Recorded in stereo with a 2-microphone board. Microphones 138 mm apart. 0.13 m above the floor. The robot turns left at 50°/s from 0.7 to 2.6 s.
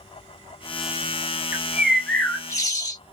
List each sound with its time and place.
1.5 s a bird: 160° right, 0.8 m; by 3.0 s 150° left, 0.8 m